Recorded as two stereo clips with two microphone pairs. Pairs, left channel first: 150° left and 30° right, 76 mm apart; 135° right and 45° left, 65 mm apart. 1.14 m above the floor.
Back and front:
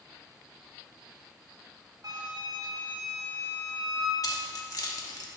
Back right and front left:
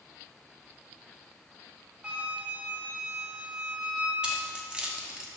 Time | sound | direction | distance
2.0 | a flute | 30° right | 1.7 m
4.2 | keys jangling | 115° left | 1.1 m